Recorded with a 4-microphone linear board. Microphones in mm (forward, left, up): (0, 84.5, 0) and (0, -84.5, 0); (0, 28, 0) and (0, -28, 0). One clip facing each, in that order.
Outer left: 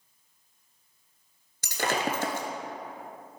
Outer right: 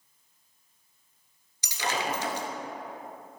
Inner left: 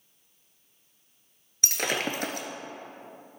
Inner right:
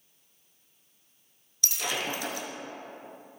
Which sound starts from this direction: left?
Breaking glass, at 1.6 s.